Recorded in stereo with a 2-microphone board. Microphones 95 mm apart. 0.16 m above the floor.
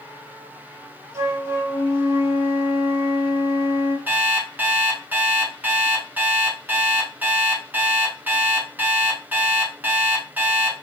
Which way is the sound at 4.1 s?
20° right (ahead or behind).